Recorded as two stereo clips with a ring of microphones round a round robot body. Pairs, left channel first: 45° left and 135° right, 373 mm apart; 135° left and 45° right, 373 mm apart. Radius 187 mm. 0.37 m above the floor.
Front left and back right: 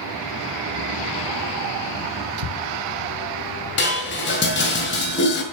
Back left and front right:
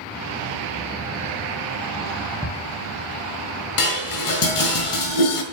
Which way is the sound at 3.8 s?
105° left.